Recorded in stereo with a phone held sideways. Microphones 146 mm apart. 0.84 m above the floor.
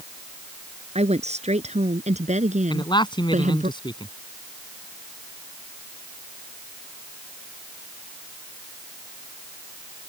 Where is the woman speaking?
45° right (ahead or behind); by 3.7 s 60° right (ahead or behind).